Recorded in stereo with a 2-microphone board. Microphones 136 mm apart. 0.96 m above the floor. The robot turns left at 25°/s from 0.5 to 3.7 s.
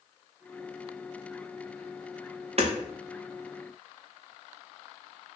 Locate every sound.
2.6 s hammering: 50° right (ahead or behind), 0.6 m; by 2.7 s 45° right (ahead or behind), 0.6 m